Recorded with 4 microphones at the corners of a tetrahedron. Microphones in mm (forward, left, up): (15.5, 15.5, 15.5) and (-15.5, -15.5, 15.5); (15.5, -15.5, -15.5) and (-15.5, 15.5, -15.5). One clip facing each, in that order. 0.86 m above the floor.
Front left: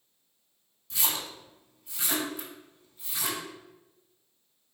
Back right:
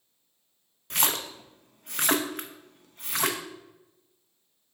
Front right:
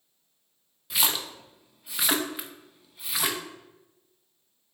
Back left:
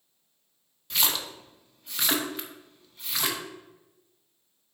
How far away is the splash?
About 0.7 m.